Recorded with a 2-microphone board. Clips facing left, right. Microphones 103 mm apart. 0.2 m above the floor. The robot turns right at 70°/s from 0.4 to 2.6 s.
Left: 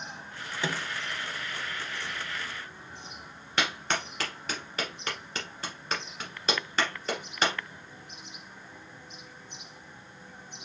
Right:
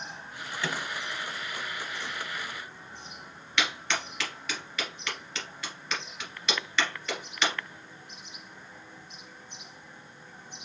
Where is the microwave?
20° left (ahead or behind), 0.9 m; by 0.9 s 15° left (ahead or behind), 0.9 m.